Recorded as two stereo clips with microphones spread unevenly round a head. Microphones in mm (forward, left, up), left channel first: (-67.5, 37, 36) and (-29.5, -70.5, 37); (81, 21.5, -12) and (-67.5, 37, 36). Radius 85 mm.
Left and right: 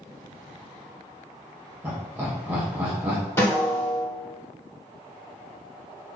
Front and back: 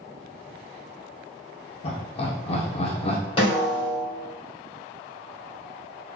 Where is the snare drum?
40° left, 1.9 m.